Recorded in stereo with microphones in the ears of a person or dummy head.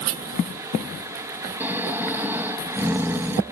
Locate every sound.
1.6 s snoring: 10° right (ahead or behind)